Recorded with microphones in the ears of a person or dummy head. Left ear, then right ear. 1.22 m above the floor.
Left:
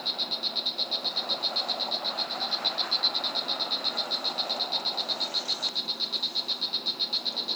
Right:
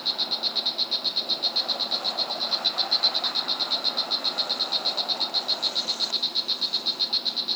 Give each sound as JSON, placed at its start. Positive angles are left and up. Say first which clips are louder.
{"t": 0.0, "sound": "an insect", "louder": "right 3 dB", "side_deg": -5}